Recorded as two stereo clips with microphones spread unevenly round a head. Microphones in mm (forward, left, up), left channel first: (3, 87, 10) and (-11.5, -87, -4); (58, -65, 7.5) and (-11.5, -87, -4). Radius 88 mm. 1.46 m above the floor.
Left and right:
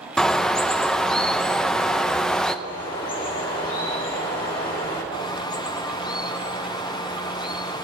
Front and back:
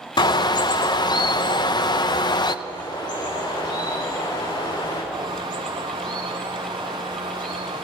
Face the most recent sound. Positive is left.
turn(degrees=150)